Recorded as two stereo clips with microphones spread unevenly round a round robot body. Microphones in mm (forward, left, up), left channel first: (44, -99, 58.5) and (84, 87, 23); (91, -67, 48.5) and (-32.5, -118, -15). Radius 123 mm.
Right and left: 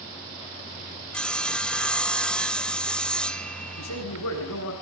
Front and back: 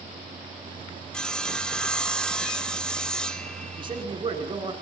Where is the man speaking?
105° right, 8 m.